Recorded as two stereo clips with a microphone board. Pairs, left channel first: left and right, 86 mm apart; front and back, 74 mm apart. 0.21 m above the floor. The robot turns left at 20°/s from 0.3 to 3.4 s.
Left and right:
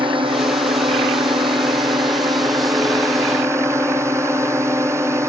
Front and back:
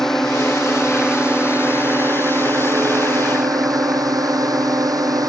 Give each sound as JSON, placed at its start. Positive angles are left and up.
{"t": 0.0, "sound": "a drone", "azimuth_deg": -85}